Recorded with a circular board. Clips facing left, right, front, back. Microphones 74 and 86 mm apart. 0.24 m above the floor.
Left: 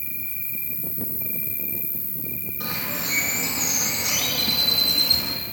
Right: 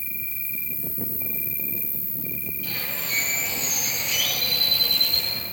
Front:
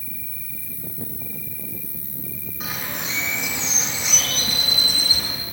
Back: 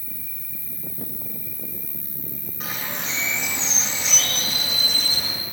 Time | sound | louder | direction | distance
0.0 | an insect | right 2 dB, front 2 dB | 150° left | 1.3 m
2.6 | a bird | left 5 dB, front 1 dB | 90° left | 7.5 m